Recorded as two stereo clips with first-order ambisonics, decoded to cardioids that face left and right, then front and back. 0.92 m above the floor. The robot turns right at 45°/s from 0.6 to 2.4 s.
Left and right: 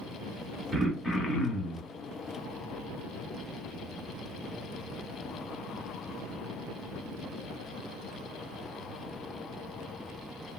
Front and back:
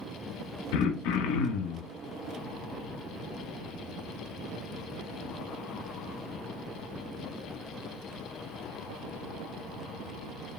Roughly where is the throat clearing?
Ahead.